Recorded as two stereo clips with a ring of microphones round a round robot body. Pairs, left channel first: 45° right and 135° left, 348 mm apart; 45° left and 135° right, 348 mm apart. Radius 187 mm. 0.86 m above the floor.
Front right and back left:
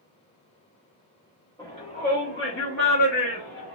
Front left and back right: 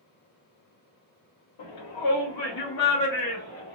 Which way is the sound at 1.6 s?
35° left.